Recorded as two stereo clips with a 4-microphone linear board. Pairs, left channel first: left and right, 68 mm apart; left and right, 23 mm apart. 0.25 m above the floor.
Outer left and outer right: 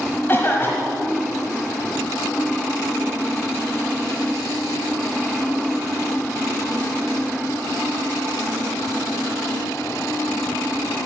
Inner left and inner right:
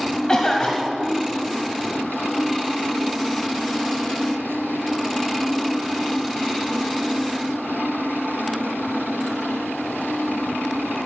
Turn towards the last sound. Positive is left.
turn(degrees=30)  # may be behind; listen again after turning